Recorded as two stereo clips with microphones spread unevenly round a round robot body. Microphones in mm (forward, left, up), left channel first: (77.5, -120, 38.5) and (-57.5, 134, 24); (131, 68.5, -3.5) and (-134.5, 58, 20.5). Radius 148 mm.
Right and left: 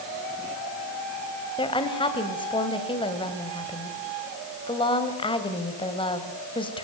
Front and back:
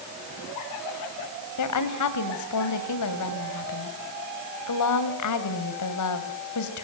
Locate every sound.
1.6 s a woman speaking: 10° left, 3 m